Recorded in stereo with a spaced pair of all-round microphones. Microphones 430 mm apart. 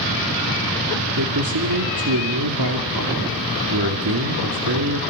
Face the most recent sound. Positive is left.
turn(degrees=-55)  # may be behind; listen again after turning